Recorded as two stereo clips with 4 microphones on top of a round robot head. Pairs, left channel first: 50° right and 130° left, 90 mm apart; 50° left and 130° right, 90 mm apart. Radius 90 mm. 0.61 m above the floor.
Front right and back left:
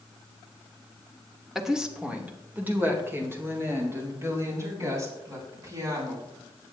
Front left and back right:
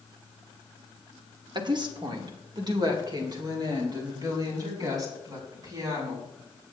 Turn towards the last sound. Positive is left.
turn(degrees=-175)